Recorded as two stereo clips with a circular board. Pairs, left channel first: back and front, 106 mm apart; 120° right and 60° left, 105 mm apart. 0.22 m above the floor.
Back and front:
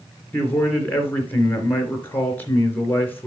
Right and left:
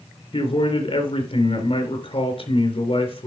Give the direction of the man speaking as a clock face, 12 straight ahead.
4 o'clock.